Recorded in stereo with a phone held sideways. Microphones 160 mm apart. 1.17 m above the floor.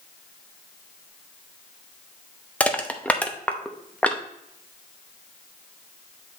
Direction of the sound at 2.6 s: 10° left (ahead or behind).